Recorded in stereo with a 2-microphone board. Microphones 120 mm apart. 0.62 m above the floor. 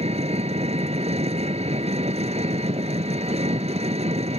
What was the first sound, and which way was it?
An engine running, 60° right (ahead or behind).